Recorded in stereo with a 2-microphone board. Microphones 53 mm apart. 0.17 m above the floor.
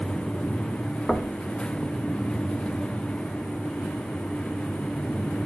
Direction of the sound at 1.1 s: 5° left (ahead or behind).